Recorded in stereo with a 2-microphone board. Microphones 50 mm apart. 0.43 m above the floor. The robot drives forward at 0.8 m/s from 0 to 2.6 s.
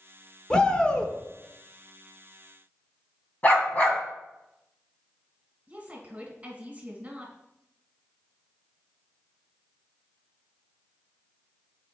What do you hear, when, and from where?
0.5 s a shout: 20° left (ahead or behind), 1.0 m
3.4 s a dog barking: 35° left (ahead or behind), 1.4 m
5.7 s a woman speaking: 30° right (ahead or behind), 1.7 m